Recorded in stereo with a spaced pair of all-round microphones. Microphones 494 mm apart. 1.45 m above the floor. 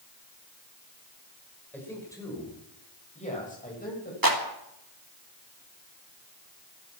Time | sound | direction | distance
1.7 | a man speaking | 5° left (ahead or behind) | 5.5 m
4.2 | a clap | 40° right (ahead or behind) | 2.5 m